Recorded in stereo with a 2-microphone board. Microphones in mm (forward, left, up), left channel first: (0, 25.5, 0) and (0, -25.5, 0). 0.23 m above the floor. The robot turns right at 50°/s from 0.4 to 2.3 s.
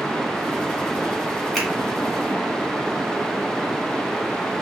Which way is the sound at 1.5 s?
Centre (ahead or behind).